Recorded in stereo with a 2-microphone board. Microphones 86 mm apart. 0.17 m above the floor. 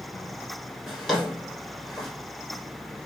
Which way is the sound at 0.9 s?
Centre (ahead or behind).